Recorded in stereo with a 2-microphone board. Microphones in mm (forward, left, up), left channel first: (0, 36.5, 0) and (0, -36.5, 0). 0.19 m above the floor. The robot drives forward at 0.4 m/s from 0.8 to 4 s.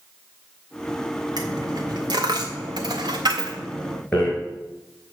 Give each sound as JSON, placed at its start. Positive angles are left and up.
{"t": 1.4, "sound": "a dropped coin", "side_deg": -65, "distance_m": 1.4}
{"t": 4.1, "sound": "a rattle", "side_deg": 15, "distance_m": 2.5}